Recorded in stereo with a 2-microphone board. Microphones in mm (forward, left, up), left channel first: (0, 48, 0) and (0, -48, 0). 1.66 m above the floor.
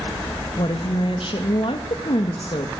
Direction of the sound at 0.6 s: 65° left (ahead or behind).